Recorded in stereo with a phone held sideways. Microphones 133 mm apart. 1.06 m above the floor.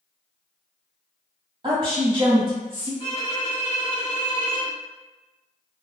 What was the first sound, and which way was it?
A woman speaking, 40° right (ahead or behind).